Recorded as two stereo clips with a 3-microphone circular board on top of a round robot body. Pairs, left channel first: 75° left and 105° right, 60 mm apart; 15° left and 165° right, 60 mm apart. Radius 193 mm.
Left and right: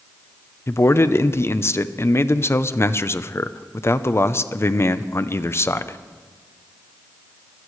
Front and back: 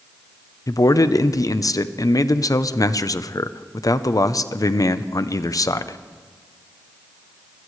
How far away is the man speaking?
About 0.9 m.